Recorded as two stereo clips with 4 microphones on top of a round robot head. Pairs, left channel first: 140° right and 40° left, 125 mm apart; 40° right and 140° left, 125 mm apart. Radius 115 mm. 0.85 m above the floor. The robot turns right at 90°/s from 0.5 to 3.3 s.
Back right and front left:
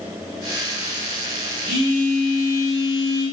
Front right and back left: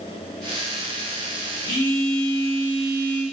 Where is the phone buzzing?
75° right, 1.5 m; by 3.2 s 70° left, 1.5 m.